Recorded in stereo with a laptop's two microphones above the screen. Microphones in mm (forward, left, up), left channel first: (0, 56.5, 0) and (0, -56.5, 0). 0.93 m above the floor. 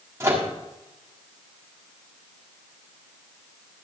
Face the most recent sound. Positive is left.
turn(degrees=-25)  # may be behind; listen again after turning